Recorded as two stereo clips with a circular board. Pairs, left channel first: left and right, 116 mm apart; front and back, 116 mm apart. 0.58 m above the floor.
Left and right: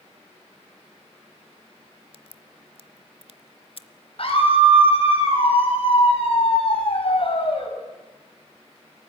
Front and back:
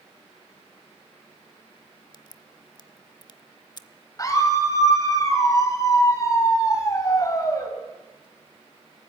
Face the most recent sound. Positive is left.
turn(degrees=60)